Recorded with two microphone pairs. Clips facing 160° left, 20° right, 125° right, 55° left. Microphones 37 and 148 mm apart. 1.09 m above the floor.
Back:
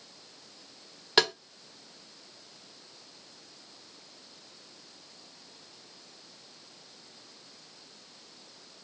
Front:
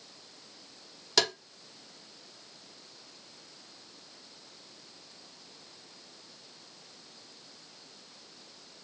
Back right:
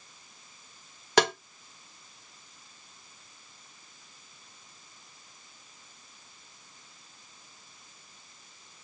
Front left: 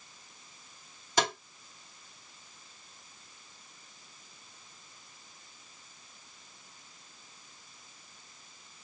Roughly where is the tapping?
Behind right.